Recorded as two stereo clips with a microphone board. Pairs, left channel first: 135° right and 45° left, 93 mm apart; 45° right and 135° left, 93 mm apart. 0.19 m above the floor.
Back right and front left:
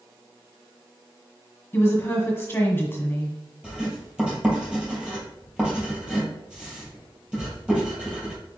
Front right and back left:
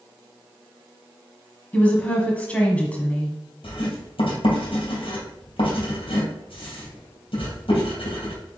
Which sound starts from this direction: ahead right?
Writing, at 3.6 s.